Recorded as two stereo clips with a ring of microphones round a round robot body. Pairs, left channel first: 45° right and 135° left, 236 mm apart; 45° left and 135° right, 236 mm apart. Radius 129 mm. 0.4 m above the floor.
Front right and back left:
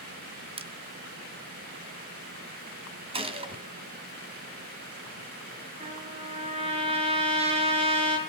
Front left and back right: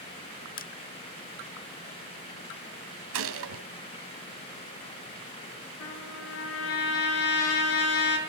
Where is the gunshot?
160° right, 2.0 m.